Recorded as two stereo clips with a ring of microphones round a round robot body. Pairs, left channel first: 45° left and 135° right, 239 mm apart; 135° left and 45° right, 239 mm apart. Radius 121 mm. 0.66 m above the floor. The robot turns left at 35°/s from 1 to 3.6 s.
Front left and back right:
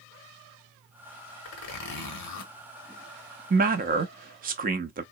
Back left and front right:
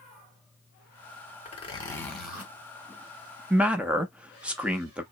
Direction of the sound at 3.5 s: 125° right.